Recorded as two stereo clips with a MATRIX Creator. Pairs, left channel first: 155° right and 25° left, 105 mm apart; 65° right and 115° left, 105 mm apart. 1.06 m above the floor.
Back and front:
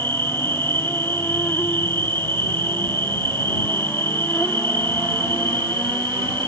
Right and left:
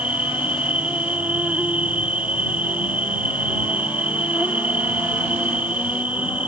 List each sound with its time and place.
0.0 s an insect: 170° left